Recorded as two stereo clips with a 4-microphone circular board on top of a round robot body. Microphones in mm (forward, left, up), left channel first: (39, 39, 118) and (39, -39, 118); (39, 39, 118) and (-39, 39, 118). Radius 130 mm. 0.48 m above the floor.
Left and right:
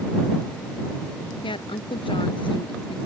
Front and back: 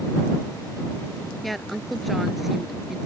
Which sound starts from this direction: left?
A woman speaking, at 1.4 s.